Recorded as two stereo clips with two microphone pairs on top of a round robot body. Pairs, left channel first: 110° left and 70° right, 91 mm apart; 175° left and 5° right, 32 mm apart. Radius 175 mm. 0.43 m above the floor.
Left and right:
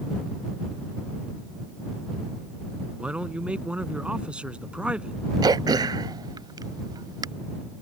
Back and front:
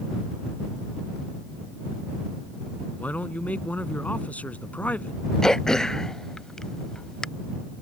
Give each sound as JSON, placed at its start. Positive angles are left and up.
{"t": 3.0, "sound": "a man speaking", "azimuth_deg": -150}
{"t": 5.4, "sound": "throat clearing", "azimuth_deg": -115}